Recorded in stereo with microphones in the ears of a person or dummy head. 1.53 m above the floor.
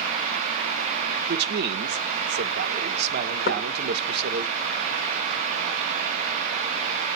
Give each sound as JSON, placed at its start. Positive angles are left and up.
{"t": 1.3, "sound": "a man speaking", "side_deg": -60, "distance_m": 1.4}
{"t": 3.5, "sound": "knocking", "side_deg": 50, "distance_m": 1.9}